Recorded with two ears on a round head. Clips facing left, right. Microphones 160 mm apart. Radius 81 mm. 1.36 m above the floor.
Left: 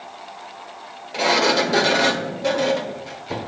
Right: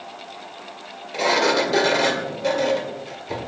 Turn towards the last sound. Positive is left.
turn(degrees=0)  # may be behind; listen again after turning